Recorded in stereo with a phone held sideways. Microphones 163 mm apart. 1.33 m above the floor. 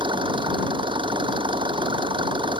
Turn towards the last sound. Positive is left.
turn(degrees=-30)  # may be behind; listen again after turning